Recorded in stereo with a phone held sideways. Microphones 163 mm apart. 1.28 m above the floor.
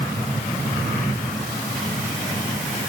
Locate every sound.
Only background noise.